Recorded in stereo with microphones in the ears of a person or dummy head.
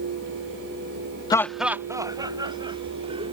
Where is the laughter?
20° left (ahead or behind); by 3.3 s 30° right (ahead or behind).